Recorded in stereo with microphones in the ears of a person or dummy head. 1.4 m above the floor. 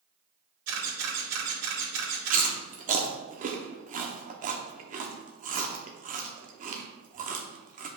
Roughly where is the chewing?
Right.